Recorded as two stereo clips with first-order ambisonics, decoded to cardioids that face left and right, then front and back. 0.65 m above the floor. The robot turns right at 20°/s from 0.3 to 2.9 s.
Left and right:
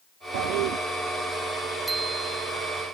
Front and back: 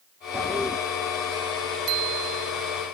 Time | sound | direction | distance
0.3 | a toilet flushing | 90° right | ?
1.9 | a bicycle bell | 165° right | ?